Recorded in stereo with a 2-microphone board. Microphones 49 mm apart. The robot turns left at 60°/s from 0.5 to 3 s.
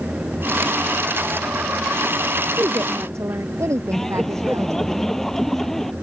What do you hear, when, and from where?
2.6 s a woman speaking: 55° right (ahead or behind); by 4.9 s 80° right
3.9 s laughter: 10° left (ahead or behind)